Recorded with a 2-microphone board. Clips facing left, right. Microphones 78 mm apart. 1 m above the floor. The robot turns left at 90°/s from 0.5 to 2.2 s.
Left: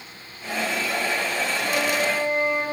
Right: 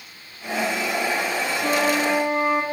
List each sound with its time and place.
1.6 s a flute: 45° right, 2.5 m; by 2.6 s 95° right, 2.5 m